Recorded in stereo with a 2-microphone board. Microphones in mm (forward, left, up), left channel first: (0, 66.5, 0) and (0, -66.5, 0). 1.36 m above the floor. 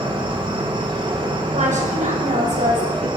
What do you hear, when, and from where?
0.0 s an insect: 40° right (ahead or behind), 2.5 m
1.5 s a woman speaking: 65° right (ahead or behind), 7 m